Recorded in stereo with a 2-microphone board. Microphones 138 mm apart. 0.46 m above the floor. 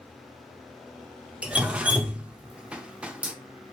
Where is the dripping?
10° right (ahead or behind), 0.5 m.